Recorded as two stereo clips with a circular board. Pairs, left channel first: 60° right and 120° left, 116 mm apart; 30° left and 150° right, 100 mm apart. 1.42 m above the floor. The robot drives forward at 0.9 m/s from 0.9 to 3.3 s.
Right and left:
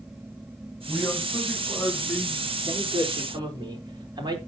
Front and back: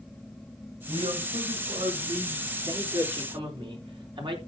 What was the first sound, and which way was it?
A man speaking, 140° right.